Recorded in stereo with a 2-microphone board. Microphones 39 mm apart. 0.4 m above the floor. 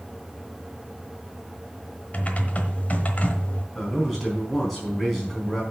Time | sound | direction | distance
2.1 | typing on a keyboard | 40° left (ahead or behind) | 1.2 m
3.8 | a man speaking | centre (ahead or behind) | 4 m